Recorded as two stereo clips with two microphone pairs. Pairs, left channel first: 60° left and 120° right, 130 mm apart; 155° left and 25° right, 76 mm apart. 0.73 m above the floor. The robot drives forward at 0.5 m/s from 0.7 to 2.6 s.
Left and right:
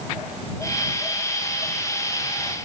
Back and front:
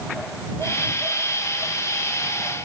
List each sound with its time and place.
Only background noise.